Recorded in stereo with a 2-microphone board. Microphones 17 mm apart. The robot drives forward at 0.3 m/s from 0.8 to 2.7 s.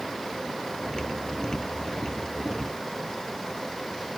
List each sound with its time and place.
Only background noise.